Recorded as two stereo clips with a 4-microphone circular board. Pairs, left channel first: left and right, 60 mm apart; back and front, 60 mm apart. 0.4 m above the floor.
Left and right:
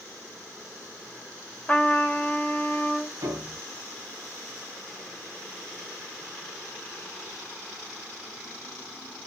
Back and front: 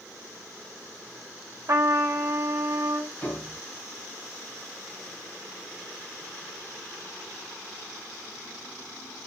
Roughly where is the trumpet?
Ahead left.